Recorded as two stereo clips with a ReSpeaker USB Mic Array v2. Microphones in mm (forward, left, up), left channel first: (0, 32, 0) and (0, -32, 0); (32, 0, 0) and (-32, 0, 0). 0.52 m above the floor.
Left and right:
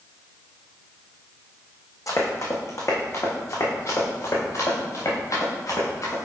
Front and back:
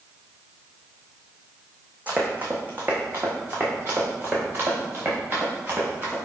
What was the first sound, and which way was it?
Running footsteps, 115° left.